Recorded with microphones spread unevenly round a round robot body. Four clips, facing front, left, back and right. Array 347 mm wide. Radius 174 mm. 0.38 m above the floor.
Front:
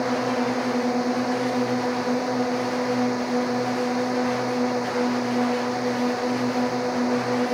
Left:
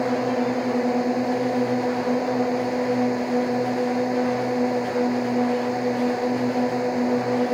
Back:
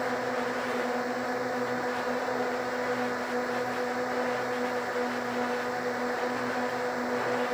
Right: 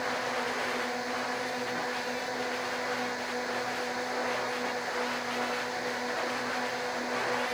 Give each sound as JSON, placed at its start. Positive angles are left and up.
{"t": 0.0, "sound": "a drone", "azimuth_deg": 50}